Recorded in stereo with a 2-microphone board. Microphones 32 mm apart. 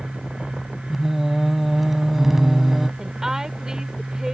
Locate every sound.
0.9 s singing: 5° right (ahead or behind)
3.0 s a woman speaking: 20° right (ahead or behind)